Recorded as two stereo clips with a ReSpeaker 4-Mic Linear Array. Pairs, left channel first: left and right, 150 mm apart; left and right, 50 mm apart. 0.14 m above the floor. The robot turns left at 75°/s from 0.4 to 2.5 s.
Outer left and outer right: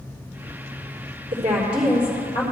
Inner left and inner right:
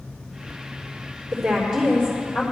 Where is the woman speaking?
140° right, 3.5 m; by 2.4 s 140° left, 3.5 m.